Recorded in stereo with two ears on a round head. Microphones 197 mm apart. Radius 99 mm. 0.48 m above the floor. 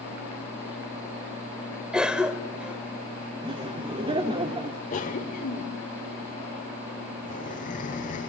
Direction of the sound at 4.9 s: 35° left (ahead or behind).